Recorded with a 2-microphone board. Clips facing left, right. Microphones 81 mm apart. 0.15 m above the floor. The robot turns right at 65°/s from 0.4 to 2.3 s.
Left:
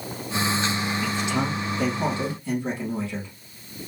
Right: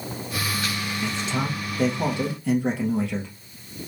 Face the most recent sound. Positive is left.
turn(degrees=-75)